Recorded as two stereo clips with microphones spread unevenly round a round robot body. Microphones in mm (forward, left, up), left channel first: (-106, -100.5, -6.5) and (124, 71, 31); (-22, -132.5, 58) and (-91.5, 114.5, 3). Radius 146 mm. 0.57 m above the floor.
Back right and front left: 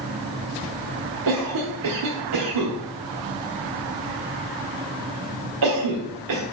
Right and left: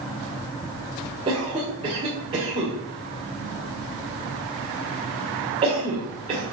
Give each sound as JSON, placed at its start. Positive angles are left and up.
{"t": 1.3, "sound": "a cough", "azimuth_deg": 45, "distance_m": 1.8}